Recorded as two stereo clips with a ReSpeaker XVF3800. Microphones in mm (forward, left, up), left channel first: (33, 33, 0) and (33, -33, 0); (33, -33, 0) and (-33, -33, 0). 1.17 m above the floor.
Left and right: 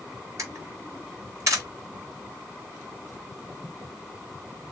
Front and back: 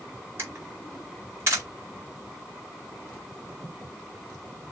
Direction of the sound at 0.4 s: 130° right.